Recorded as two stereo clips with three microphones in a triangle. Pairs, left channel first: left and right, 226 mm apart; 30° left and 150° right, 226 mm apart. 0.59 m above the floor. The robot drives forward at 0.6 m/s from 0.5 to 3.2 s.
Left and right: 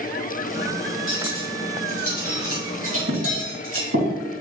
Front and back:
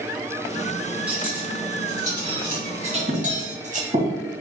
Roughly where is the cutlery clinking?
Ahead right.